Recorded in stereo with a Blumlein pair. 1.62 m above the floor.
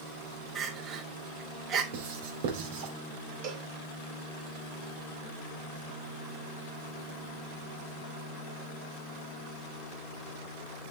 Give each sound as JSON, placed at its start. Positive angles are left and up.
{"t": 0.6, "sound": "crying", "azimuth_deg": -30, "distance_m": 3.0}
{"t": 1.9, "sound": "writing", "azimuth_deg": -55, "distance_m": 3.5}
{"t": 3.4, "sound": "a cowbell", "azimuth_deg": -40, "distance_m": 3.5}